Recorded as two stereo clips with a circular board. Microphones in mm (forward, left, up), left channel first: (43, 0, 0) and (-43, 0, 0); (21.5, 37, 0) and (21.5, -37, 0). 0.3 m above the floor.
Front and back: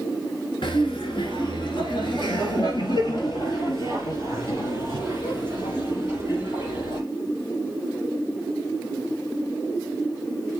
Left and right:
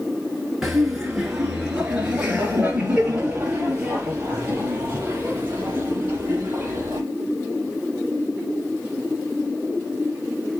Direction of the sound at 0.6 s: 5° right.